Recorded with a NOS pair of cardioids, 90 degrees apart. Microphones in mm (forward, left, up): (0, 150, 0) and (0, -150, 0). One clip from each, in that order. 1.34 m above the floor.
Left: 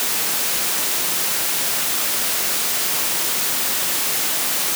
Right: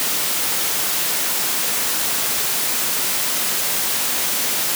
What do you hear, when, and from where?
Only background noise.